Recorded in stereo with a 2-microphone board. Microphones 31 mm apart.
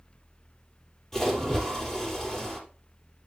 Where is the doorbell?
I don't hear a doorbell.